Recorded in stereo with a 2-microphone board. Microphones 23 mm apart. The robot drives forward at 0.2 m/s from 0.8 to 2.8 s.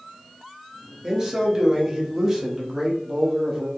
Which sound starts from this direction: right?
A man speaking, at 1.0 s.